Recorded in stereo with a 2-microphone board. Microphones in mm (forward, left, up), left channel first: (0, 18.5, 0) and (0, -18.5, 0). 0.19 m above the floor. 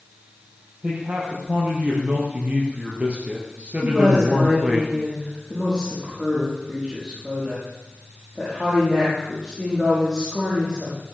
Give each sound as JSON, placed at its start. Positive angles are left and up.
{"t": 0.8, "sound": "a man speaking", "side_deg": -45, "distance_m": 4.5}
{"t": 3.8, "sound": "a woman speaking", "side_deg": -15, "distance_m": 7.0}